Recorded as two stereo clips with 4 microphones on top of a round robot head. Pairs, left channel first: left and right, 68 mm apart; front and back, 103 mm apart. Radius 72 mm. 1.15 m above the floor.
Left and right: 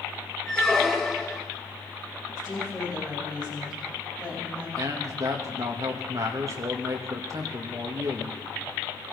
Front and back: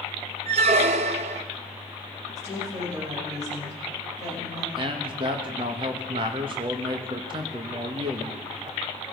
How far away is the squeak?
About 0.6 m.